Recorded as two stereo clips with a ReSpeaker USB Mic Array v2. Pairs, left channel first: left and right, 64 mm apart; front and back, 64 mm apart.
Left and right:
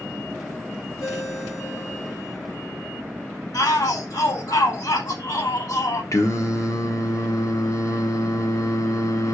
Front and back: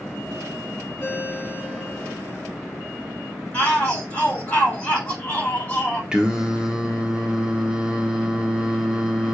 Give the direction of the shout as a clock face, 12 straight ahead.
10 o'clock.